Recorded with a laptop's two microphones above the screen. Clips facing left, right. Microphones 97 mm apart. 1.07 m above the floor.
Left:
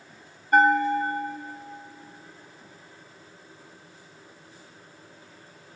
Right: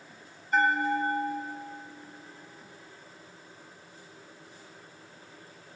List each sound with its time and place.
0.5 s a bell: 55° left (ahead or behind), 1.4 m